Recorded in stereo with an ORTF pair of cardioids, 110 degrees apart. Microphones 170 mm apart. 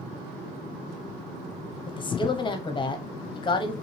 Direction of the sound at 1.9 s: 30° left.